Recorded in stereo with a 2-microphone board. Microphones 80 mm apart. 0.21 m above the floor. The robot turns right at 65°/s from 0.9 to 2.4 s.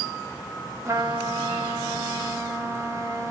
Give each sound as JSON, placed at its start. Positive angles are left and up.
{"t": 0.8, "sound": "a trumpet", "azimuth_deg": -130, "distance_m": 1.1}